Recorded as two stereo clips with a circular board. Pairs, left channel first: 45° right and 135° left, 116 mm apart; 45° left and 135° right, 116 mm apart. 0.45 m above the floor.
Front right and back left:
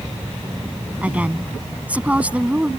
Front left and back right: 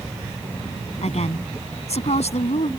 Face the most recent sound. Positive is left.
turn(degrees=55)